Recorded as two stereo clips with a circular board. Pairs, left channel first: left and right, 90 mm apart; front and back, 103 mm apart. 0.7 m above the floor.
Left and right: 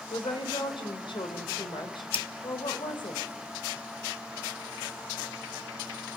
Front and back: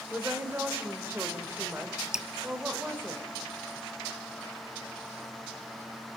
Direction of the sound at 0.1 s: 110° left.